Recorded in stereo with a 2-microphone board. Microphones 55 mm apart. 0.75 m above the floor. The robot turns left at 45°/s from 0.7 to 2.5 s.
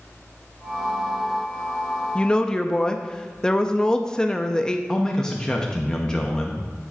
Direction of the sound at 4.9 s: 10° left (ahead or behind).